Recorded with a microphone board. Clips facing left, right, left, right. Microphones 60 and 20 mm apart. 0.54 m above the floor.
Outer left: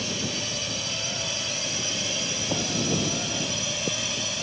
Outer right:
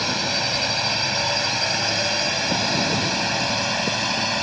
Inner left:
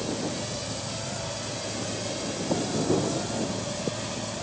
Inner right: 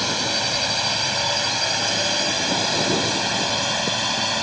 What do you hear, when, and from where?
0.0 s a drone: 60° right (ahead or behind)